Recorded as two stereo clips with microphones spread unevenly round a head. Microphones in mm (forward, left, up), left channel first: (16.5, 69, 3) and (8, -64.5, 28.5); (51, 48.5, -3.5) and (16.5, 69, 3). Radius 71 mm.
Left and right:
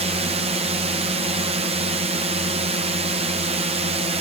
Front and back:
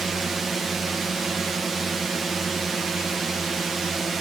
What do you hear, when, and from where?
0.0 s a drone: 120° right